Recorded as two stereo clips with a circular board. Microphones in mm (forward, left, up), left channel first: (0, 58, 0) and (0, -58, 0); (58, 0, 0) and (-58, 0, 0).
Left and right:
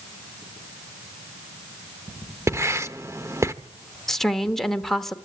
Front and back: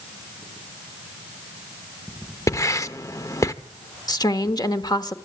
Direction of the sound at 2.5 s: 40° right.